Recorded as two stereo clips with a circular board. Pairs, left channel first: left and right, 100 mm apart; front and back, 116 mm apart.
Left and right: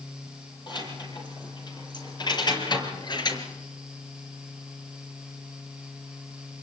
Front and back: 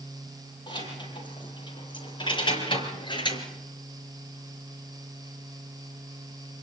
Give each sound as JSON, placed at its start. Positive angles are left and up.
{"t": 0.7, "sound": "keys jangling", "azimuth_deg": 50, "distance_m": 8.5}